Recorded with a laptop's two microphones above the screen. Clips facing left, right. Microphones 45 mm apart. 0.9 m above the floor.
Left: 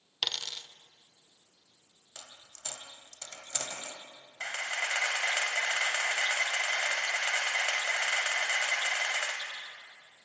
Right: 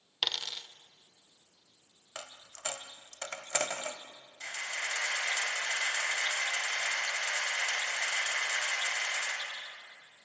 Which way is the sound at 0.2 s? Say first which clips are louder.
Right 1 dB; 5° right (ahead or behind).